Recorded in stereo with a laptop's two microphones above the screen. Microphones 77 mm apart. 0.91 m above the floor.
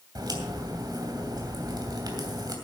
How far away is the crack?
About 2.5 m.